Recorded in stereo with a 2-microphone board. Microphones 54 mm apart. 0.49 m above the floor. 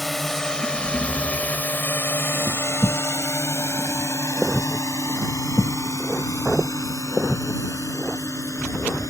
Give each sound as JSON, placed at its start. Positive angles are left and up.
{"t": 0.0, "sound": "a drone", "side_deg": 0}